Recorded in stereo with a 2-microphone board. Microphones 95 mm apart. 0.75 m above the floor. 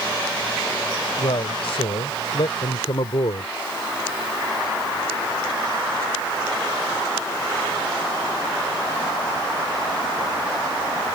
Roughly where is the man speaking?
Left.